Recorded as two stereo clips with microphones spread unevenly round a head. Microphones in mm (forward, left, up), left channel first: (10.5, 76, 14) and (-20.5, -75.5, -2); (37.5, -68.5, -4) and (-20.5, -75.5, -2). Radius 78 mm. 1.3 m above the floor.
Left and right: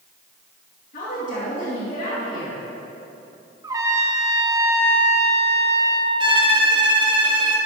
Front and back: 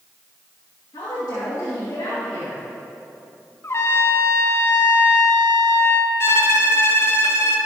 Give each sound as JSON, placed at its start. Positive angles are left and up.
{"t": 0.9, "sound": "a woman speaking", "azimuth_deg": 40, "distance_m": 2.0}
{"t": 3.6, "sound": "a trumpet", "azimuth_deg": -30, "distance_m": 0.7}
{"t": 6.2, "sound": "a violin", "azimuth_deg": -35, "distance_m": 1.0}